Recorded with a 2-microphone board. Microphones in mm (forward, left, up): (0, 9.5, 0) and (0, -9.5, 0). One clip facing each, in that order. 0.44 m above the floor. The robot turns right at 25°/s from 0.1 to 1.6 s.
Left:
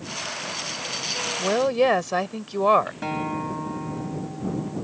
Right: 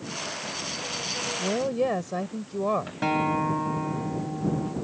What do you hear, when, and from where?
1.4 s a woman speaking: 55° left (ahead or behind)
3.0 s a guitar: 15° right (ahead or behind)